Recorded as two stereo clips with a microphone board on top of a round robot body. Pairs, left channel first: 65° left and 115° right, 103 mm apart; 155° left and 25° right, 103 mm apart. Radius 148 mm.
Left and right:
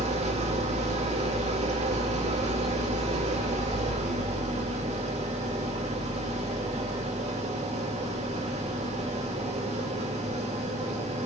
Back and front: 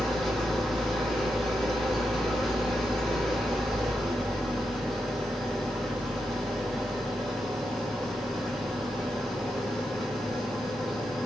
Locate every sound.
0.0 s an engine running: 115° right, 1.5 m